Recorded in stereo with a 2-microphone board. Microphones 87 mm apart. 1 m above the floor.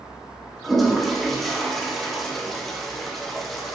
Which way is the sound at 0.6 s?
Centre (ahead or behind).